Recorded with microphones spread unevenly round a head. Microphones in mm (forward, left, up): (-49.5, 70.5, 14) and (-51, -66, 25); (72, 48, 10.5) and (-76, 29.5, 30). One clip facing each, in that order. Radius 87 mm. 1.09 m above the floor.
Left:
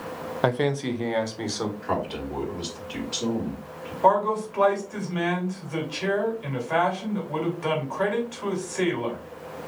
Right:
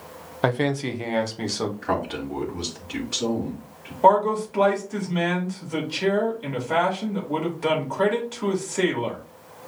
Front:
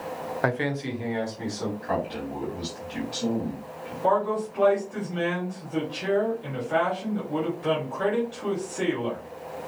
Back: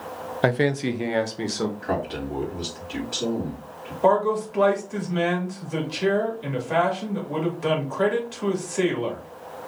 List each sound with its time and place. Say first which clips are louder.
0.4 s a man speaking: right 1 dB, back 6 dB; 160° left, 0.6 m; by 1.7 s 170° right, 1.4 m
1.8 s a man speaking: right 2 dB, back 2 dB; 125° right, 3.5 m
4.0 s a man speaking: right 3 dB, back 4 dB; 150° right, 2.5 m